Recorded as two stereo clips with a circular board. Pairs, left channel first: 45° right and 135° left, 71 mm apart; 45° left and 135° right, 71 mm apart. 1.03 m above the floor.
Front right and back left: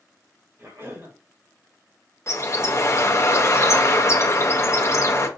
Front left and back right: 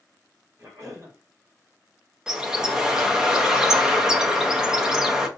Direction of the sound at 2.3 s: 60° right.